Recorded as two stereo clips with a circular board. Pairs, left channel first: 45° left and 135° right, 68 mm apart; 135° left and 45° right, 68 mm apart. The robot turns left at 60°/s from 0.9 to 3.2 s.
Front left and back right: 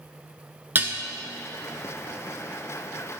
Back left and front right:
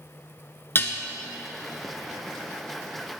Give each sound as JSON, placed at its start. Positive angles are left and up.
{"t": 0.8, "sound": "dishes clattering", "azimuth_deg": 175, "distance_m": 1.2}